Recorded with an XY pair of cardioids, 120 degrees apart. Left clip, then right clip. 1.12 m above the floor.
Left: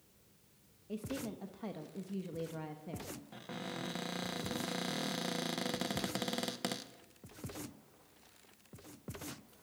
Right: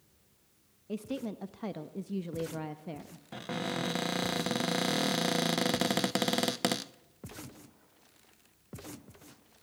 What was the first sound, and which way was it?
A woman speaking, 35° right.